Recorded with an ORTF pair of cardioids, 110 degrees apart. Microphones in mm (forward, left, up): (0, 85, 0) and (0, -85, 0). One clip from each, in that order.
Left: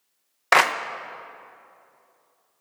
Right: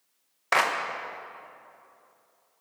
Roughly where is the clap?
Ahead left.